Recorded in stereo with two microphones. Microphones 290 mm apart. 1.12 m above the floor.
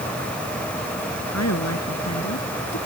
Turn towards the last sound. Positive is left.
turn(degrees=65)  # may be behind; listen again after turning